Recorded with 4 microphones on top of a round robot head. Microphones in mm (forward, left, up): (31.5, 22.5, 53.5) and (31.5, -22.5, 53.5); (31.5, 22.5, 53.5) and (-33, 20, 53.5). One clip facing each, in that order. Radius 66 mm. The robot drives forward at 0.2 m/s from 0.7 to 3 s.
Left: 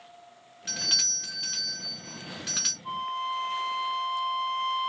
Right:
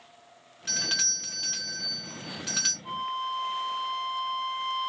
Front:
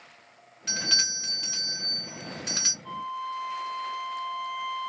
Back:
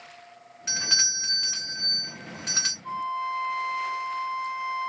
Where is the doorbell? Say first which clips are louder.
Right 1 dB, back 1 dB; 175° left, 0.9 m; by 2.7 s straight behind, 1.1 m.